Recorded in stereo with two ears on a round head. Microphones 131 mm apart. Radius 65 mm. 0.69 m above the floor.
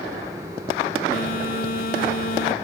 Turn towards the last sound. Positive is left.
turn(degrees=65)  # may be behind; listen again after turning